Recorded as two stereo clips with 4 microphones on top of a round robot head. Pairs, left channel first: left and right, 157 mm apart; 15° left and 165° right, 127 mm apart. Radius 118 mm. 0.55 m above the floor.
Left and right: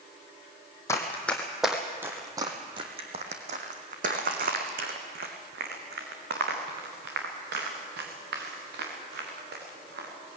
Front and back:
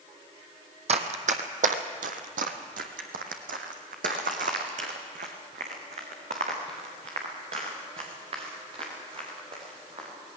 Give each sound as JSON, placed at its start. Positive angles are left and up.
{"t": 0.9, "sound": "running footsteps", "azimuth_deg": 165, "distance_m": 1.4}